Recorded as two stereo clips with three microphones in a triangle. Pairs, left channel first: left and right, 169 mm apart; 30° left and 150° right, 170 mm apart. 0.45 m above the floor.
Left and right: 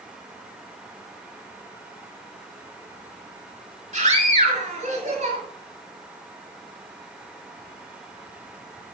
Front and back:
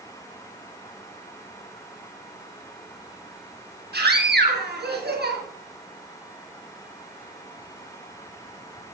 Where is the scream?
140° right, 7 m.